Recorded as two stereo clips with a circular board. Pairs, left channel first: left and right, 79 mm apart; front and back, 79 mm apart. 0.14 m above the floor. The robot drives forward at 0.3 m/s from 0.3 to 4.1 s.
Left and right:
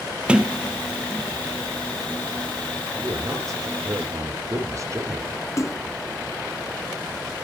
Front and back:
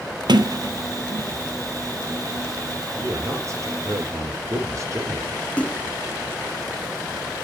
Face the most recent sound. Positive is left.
turn(degrees=65)